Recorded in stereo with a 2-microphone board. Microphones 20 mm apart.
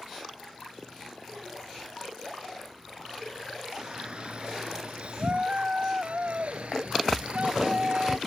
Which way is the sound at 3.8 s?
50° right (ahead or behind).